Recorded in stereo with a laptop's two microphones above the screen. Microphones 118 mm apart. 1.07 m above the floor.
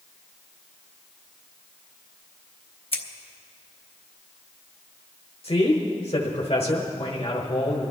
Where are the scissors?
50° left (ahead or behind), 1.1 m.